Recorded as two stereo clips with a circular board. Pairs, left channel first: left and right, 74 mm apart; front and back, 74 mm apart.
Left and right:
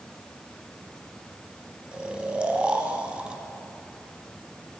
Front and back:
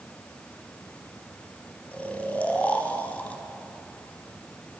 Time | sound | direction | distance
1.9 | snoring | 35° right | 0.9 m